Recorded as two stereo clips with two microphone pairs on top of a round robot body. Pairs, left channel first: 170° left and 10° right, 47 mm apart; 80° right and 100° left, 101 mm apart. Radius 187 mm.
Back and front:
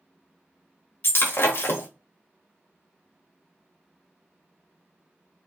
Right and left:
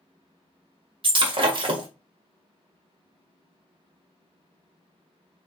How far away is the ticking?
I don't hear ticking.